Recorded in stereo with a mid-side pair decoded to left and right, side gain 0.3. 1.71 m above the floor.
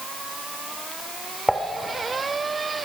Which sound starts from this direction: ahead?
Dishes clattering, at 1.5 s.